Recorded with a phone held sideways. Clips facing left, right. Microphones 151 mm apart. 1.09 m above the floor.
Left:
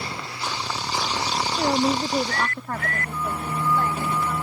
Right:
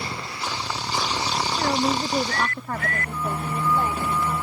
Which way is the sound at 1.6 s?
25° left (ahead or behind).